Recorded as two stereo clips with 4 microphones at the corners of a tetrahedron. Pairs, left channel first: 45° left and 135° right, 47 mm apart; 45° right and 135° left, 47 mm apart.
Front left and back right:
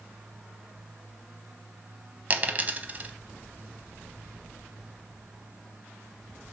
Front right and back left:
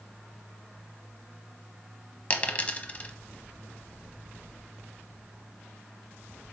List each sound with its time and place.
2.3 s a dropped coin: 95° right, 0.7 m